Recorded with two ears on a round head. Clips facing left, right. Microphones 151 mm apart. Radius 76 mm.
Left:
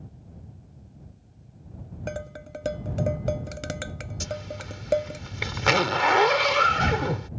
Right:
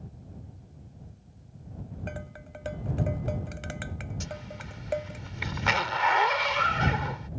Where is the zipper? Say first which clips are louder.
Left 6 dB; 60° left (ahead or behind).